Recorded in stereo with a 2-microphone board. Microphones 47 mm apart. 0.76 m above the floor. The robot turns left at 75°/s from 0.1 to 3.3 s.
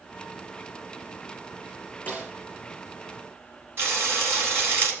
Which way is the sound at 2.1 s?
35° left (ahead or behind).